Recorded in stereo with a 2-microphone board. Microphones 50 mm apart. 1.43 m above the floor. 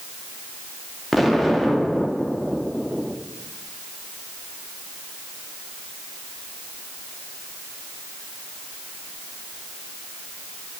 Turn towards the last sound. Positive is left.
turn(degrees=0)  # may be behind; listen again after turning